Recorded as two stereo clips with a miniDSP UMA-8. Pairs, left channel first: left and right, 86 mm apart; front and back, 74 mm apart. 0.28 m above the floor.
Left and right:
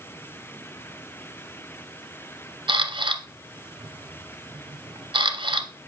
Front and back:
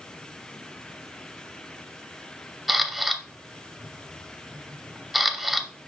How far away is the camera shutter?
About 0.6 m.